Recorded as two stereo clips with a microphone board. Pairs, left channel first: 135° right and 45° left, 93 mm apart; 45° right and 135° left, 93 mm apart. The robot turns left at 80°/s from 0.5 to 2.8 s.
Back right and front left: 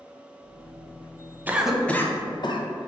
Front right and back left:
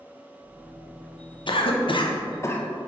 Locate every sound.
1.5 s a cough: 25° right, 0.5 m; by 2.7 s 120° right, 0.5 m